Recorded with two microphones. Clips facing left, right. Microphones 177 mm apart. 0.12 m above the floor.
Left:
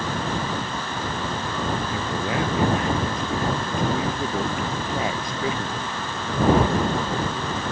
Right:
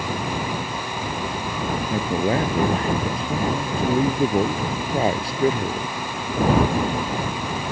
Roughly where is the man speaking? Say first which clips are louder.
Right 5 dB; right.